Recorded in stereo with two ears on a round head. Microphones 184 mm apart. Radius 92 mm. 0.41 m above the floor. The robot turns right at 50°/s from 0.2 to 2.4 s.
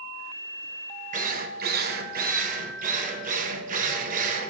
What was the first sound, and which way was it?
A drill, 125° right.